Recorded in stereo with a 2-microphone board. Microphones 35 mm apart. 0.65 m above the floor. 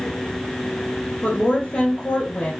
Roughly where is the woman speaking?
Left.